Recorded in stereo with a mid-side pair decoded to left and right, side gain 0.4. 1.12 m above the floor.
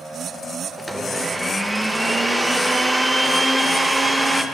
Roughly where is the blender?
Ahead.